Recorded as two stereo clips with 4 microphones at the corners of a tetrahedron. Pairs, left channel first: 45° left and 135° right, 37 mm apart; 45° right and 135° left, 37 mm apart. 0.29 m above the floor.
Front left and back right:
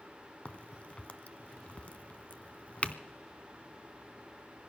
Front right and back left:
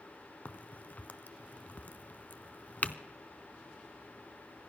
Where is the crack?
5° right, 0.7 m.